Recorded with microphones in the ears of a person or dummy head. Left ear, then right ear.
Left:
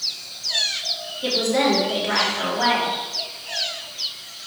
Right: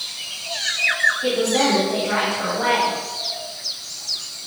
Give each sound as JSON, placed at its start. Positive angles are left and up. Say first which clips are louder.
{"t": 1.2, "sound": "a woman speaking", "louder": "right 1 dB", "side_deg": 50, "distance_m": 3.0}